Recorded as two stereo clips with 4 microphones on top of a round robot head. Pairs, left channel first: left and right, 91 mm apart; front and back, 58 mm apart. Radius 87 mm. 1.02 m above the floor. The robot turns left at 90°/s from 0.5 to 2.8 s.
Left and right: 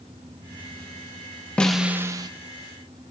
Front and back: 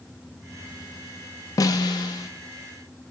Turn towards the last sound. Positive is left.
turn(degrees=-95)